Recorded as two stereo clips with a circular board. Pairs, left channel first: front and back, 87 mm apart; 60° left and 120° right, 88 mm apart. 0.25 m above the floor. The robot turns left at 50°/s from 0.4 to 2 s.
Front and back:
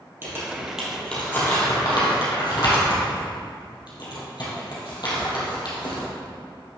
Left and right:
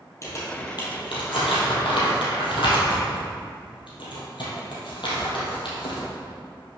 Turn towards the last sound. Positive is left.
turn(degrees=35)